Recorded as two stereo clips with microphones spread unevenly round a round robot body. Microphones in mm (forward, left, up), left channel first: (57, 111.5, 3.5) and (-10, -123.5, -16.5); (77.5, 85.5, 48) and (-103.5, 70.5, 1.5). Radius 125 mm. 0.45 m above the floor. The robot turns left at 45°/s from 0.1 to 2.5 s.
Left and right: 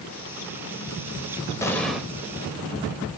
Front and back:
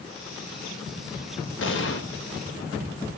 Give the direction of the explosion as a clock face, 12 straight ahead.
12 o'clock.